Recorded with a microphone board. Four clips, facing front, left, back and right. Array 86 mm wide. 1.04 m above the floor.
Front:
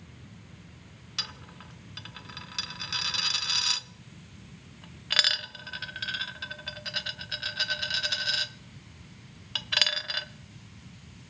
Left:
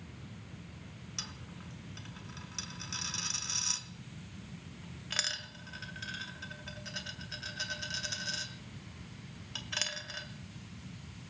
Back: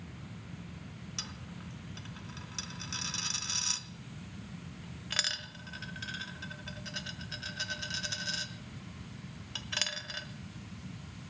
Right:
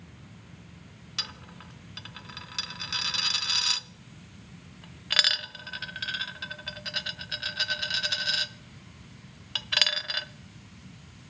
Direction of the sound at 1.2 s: 55° right.